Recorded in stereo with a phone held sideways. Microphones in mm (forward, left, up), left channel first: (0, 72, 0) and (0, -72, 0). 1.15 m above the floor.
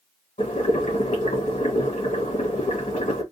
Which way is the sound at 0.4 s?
60° left (ahead or behind).